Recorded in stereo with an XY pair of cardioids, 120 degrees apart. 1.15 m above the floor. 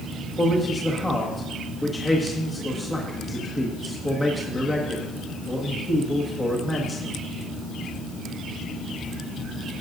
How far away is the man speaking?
About 1.6 m.